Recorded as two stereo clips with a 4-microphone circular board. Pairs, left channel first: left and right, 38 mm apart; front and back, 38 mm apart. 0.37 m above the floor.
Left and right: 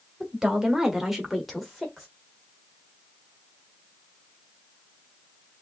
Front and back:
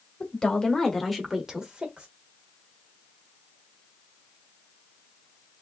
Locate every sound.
0.2 s a woman speaking: 30° right, 1.3 m; by 2.1 s 175° left, 1.3 m